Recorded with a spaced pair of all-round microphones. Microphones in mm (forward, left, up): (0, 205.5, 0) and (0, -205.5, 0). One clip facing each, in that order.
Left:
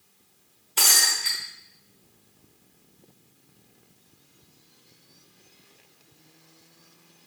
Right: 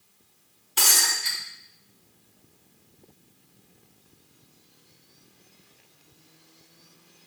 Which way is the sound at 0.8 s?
25° right (ahead or behind).